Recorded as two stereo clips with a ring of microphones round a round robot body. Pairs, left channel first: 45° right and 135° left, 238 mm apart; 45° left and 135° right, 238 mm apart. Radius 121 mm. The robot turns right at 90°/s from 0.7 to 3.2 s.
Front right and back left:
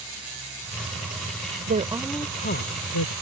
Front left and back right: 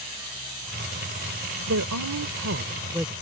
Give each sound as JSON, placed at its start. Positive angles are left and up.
{"t": 1.7, "sound": "a woman speaking", "azimuth_deg": -175}